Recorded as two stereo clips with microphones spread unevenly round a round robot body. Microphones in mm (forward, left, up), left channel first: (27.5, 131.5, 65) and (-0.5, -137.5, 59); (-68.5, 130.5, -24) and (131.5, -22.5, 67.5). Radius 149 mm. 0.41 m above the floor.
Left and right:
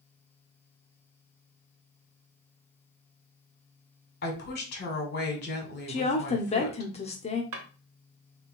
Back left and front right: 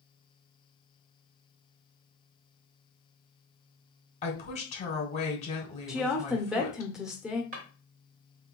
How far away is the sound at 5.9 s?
About 0.8 m.